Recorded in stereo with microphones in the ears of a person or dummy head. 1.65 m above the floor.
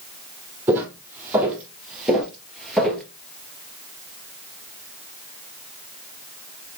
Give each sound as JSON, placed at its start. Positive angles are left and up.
{"t": 0.7, "sound": "footsteps", "side_deg": -10, "distance_m": 3.0}